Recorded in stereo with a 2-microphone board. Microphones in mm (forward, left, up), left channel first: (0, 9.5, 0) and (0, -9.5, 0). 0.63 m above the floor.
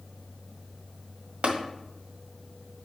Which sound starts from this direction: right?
Tapping, at 1.4 s.